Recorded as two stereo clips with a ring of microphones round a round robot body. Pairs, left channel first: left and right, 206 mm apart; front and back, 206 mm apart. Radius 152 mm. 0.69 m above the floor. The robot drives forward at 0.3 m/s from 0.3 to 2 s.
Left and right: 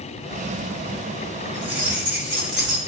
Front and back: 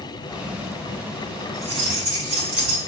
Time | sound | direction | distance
1.5 | keys jangling | 135° right | 3.5 m